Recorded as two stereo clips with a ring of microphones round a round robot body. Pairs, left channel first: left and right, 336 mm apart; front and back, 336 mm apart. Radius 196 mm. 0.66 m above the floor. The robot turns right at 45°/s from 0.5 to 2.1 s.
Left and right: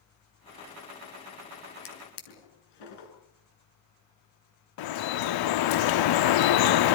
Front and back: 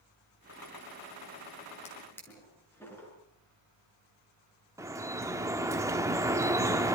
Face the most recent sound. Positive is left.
turn(degrees=100)